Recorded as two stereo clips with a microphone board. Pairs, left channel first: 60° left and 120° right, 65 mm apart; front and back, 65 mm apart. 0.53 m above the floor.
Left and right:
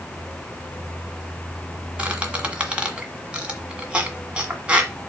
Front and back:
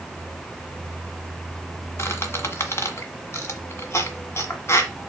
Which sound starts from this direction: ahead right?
A squeak, at 2.0 s.